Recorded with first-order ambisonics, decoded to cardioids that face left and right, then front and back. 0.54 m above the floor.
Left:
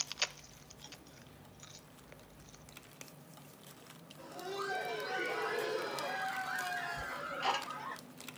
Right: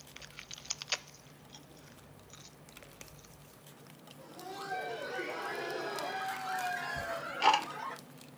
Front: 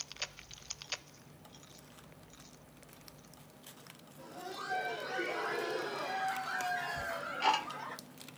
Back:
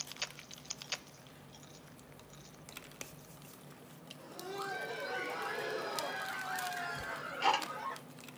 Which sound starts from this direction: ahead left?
Laughter, at 4.2 s.